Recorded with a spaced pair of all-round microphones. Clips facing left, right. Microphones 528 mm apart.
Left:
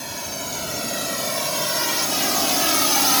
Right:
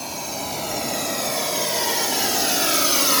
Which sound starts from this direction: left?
A drone, at 0.0 s.